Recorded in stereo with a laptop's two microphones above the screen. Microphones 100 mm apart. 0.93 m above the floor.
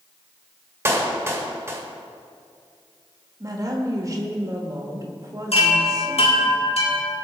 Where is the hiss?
No hiss in this recording.